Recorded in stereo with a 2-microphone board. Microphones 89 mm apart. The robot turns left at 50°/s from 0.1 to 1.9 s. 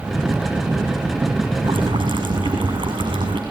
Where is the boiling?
75° right (ahead or behind), 6 m; by 3.4 s 60° right (ahead or behind), 6 m.